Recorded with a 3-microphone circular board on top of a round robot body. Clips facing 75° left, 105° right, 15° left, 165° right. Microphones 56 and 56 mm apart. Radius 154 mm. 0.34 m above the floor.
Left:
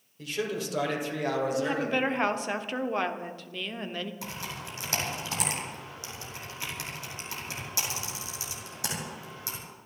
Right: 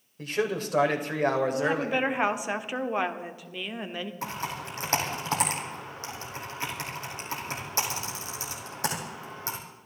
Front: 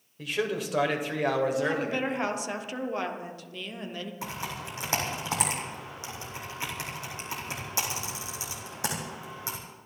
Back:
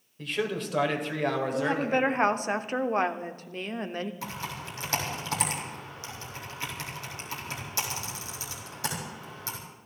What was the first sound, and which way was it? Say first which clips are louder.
A man speaking: right 3 dB, front 1 dB; 70° right.